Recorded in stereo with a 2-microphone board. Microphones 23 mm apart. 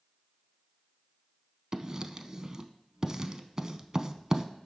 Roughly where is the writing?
Right.